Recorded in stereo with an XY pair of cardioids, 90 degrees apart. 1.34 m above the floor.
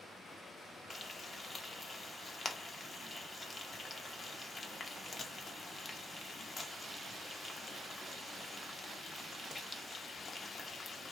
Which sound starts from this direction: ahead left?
Frying, at 0.9 s.